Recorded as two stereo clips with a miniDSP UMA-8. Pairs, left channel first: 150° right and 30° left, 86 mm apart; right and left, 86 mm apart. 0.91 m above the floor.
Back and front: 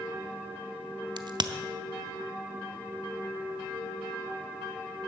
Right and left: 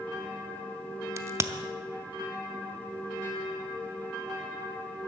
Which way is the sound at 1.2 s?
45° left.